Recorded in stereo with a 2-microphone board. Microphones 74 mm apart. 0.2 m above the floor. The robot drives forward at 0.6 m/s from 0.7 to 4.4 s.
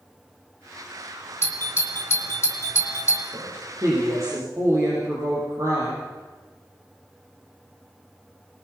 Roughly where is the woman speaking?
Right.